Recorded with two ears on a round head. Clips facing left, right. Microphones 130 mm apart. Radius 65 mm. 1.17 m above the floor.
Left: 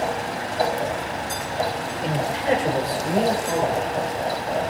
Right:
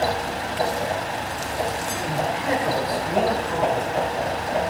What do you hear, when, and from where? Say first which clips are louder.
2.0 s a man speaking: left 2 dB; 40° left (ahead or behind), 3.5 m; by 3.9 s 25° left (ahead or behind), 5 m